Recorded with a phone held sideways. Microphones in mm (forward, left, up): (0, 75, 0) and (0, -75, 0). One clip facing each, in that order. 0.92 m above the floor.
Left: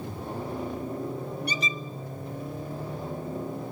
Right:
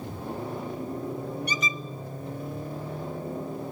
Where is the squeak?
30° left (ahead or behind), 0.7 m.